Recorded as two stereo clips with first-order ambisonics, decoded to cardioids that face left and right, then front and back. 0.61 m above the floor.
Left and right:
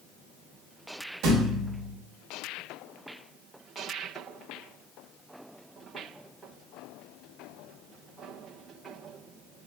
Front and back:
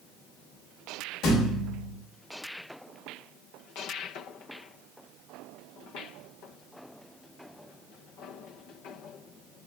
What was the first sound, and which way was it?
A thud, 50° right.